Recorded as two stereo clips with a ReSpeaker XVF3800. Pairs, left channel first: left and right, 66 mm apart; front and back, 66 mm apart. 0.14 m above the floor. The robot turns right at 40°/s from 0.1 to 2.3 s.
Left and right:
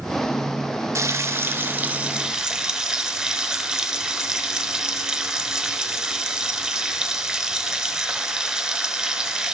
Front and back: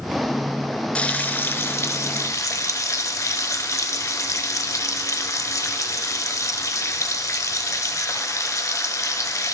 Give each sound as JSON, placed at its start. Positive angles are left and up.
{"t": 0.9, "sound": "frying", "azimuth_deg": -70, "distance_m": 0.7}